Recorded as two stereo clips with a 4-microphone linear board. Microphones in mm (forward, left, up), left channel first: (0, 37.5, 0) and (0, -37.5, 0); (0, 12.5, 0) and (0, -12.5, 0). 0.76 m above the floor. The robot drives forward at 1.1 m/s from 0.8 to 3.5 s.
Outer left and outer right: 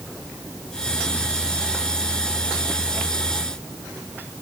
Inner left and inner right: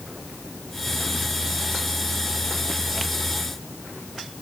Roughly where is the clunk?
I don't hear a clunk.